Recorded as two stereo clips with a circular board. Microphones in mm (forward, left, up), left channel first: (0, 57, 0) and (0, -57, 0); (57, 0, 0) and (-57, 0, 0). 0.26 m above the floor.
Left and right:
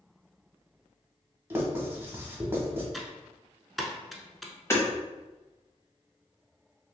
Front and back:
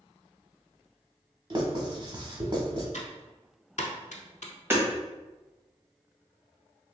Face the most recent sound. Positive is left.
turn(degrees=130)